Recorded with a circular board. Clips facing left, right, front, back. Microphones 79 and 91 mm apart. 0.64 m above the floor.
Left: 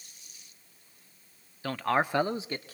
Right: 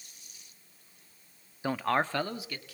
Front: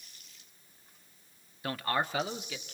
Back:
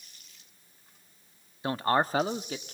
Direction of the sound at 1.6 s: 145° right.